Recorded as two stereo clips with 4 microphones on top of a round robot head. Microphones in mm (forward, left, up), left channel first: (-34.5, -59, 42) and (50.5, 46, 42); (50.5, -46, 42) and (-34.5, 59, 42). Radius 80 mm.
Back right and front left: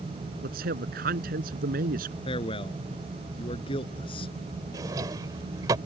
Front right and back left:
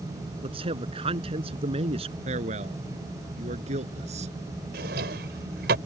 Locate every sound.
0.4 s a man speaking: 75° left; by 2.1 s 80° left
2.2 s a man speaking: 175° left
4.7 s a drawer: 120° left